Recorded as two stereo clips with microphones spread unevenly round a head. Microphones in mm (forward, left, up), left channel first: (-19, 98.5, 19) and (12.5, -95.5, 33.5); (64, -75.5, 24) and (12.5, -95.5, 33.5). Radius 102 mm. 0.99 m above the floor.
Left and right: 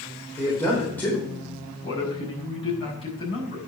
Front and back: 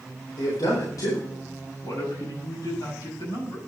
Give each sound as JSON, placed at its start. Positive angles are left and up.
{"t": 0.4, "sound": "a man speaking", "azimuth_deg": 15, "distance_m": 4.0}
{"t": 1.8, "sound": "a man speaking", "azimuth_deg": 30, "distance_m": 5.5}